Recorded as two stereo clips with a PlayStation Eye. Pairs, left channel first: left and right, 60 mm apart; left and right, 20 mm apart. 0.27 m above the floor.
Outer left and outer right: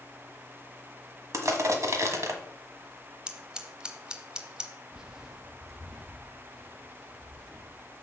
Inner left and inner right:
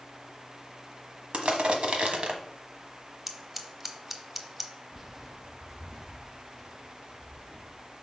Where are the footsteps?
15° right (ahead or behind), 0.6 m; by 7.8 s 5° right (ahead or behind), 3 m.